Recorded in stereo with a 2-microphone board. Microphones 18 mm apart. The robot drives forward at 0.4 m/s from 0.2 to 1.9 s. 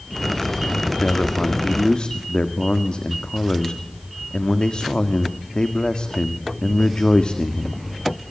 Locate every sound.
1.0 s a man speaking: 55° left (ahead or behind), 2 m; by 7.8 s 60° left (ahead or behind), 1.8 m